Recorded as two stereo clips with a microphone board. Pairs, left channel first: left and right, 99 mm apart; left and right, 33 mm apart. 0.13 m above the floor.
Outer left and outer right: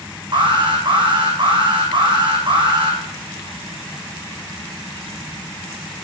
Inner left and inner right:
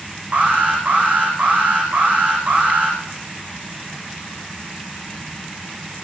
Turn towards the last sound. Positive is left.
turn(degrees=-55)  # may be behind; listen again after turning